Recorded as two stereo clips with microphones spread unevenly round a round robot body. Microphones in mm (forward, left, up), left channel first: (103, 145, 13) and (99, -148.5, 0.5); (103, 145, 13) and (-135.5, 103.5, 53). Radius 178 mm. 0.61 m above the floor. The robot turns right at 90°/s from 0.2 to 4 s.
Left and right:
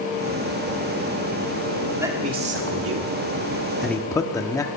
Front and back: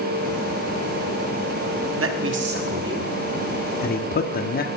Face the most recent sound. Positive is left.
turn(degrees=10)